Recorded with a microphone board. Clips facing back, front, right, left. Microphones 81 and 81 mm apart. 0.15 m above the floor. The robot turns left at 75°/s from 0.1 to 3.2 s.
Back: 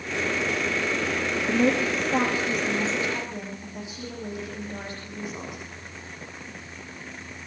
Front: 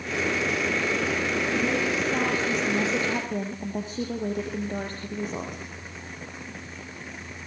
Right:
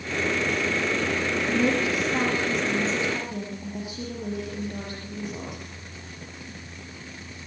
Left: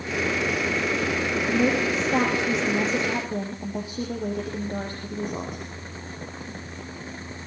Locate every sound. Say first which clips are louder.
1.5 s a woman speaking: back 7 dB, left 1 dB; 170° left, 7 m; by 5.6 s 40° left, 7 m